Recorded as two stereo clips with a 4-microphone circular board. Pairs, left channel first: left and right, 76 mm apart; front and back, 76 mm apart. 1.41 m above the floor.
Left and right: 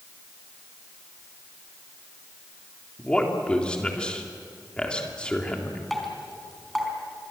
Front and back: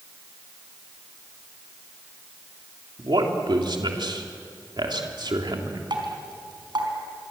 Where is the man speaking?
165° left, 3.5 m.